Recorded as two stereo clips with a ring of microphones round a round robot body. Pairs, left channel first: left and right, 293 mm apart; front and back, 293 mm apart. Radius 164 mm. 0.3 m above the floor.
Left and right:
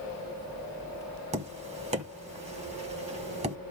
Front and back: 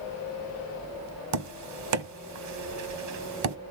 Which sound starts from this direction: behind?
Tapping, at 1.3 s.